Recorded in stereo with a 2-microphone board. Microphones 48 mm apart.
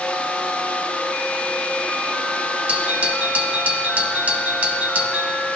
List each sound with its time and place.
2.7 s a doorbell: 35° right (ahead or behind), 1.7 m